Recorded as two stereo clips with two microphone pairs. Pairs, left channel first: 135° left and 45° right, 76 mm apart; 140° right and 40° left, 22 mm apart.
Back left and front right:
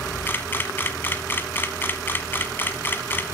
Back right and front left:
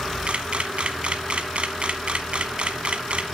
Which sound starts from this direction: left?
A camera shutter, at 0.3 s.